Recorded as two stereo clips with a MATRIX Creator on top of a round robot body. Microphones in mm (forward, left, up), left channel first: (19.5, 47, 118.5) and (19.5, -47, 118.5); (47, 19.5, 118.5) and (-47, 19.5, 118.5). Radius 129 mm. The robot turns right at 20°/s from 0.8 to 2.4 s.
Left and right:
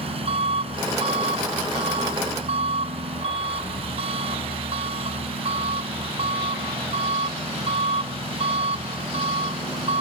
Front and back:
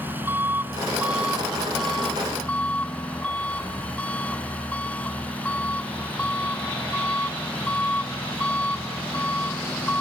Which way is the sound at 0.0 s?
110° right.